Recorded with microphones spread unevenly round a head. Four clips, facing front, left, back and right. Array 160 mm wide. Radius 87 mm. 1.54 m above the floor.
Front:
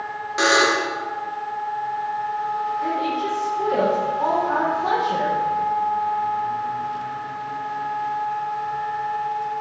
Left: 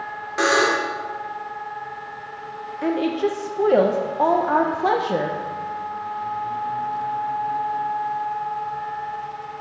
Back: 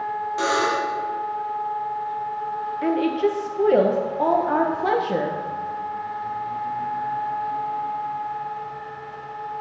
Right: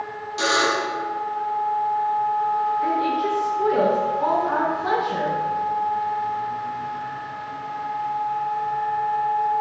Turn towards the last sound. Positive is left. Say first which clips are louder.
# even, back 2 dB
turn(degrees=125)